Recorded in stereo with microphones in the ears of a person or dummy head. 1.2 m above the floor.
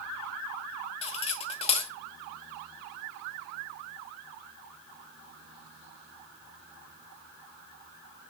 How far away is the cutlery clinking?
About 1.1 m.